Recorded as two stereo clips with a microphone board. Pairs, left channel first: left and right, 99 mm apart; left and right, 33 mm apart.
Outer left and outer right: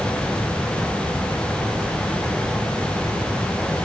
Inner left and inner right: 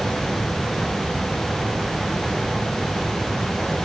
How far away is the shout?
No shout in this recording.